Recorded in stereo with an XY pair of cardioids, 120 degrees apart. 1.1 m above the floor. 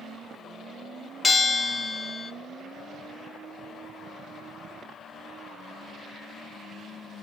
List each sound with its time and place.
1.2 s a bell: 20° left, 0.6 m